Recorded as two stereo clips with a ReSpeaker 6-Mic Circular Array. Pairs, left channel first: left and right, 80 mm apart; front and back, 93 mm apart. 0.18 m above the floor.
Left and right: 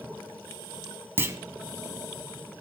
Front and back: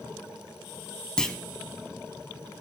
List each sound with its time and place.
1.2 s a clunk: 75° right, 0.6 m